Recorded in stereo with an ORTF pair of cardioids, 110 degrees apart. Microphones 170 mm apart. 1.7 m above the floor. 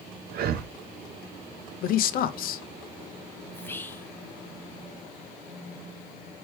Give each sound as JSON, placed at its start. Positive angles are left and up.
{"t": 0.3, "sound": "breathing", "azimuth_deg": -65, "distance_m": 0.6}
{"t": 1.8, "sound": "a man speaking", "azimuth_deg": 65, "distance_m": 0.6}
{"t": 3.5, "sound": "whispering", "azimuth_deg": 15, "distance_m": 0.8}